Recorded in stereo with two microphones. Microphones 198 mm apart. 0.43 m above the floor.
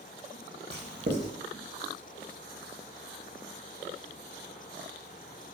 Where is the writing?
60° right (ahead or behind), 0.6 m.